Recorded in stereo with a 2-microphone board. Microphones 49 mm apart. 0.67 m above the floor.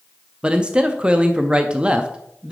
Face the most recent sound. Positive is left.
turn(degrees=-20)  # may be behind; listen again after turning